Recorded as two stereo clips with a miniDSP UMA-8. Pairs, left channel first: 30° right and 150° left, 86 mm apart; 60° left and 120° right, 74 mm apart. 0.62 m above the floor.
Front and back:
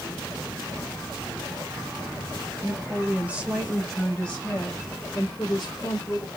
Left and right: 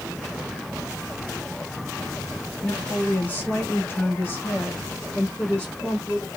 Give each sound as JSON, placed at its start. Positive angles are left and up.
{"t": 2.6, "sound": "a woman speaking", "azimuth_deg": 120, "distance_m": 1.3}